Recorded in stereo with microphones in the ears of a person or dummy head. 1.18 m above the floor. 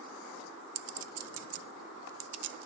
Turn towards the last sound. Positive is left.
turn(degrees=-85)